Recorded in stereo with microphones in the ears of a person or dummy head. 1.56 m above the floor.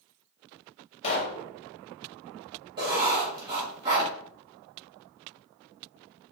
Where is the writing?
25° right (ahead or behind), 1.7 m.